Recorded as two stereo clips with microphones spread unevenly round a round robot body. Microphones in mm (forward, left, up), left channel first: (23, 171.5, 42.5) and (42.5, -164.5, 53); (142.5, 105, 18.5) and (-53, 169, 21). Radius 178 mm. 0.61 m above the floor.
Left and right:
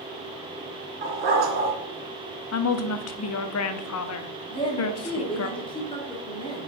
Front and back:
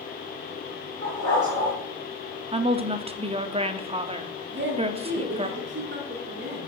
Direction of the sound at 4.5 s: 165° left.